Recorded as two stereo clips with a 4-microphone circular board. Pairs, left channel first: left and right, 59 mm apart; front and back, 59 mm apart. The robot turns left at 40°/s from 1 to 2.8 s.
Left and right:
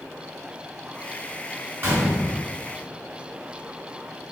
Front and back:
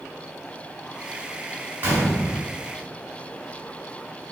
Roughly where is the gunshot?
Behind right.